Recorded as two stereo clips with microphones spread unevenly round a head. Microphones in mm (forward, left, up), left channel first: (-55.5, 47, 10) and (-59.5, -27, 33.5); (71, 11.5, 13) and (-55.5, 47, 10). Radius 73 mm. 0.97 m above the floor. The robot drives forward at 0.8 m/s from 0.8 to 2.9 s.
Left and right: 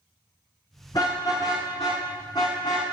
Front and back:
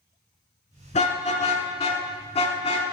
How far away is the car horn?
About 6 m.